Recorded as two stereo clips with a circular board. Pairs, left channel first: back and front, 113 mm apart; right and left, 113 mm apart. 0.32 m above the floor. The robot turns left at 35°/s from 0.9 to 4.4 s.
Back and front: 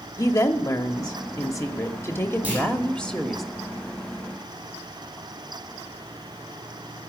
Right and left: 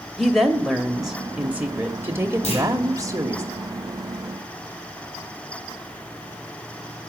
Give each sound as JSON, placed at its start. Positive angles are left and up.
{"t": 0.2, "sound": "a woman speaking", "azimuth_deg": 180, "distance_m": 1.0}
{"t": 2.4, "sound": "a clunk", "azimuth_deg": -75, "distance_m": 9.5}